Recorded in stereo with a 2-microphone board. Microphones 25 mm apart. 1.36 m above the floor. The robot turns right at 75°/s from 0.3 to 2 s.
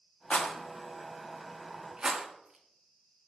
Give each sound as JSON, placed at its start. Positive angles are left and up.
{"t": 0.3, "sound": "a rattle", "side_deg": 50, "distance_m": 1.0}